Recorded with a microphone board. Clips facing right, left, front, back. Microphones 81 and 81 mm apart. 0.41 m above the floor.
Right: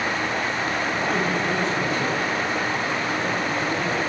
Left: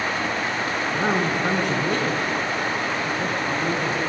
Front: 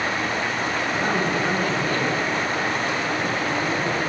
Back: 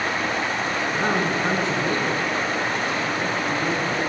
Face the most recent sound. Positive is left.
turn(degrees=110)